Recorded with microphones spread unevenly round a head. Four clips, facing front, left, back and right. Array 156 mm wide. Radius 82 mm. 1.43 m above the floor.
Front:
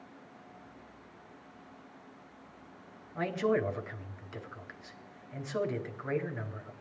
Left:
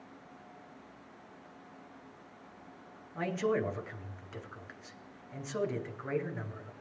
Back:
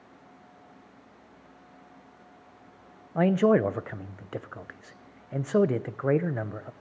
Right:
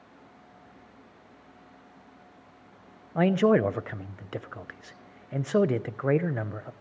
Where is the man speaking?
140° right, 0.7 m.